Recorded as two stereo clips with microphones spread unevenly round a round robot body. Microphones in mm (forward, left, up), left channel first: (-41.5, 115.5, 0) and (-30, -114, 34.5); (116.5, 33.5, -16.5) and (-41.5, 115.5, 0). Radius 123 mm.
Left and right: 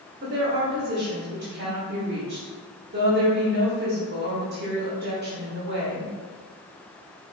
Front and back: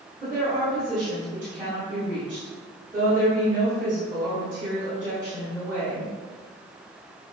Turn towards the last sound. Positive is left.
turn(degrees=-130)